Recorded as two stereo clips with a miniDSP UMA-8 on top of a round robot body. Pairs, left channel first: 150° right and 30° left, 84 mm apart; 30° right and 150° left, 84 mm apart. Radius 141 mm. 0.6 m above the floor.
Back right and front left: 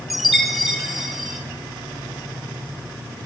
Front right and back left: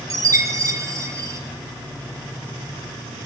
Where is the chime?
120° left, 1.5 m.